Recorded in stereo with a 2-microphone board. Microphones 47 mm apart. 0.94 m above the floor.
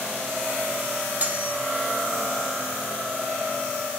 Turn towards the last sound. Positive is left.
turn(degrees=-35)  # may be behind; listen again after turning